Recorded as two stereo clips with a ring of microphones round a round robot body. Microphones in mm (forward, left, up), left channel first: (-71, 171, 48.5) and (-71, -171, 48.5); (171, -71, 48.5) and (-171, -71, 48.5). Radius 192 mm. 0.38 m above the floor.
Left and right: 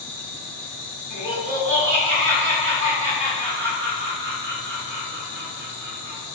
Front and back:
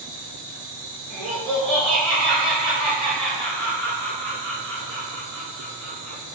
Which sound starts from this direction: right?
Laughter, at 1.1 s.